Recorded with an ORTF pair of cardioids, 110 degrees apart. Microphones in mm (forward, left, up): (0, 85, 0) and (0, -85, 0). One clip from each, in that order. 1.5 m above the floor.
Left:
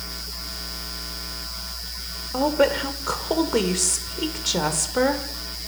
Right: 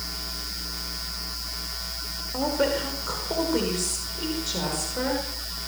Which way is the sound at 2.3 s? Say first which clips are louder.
Left 5 dB; 35° left.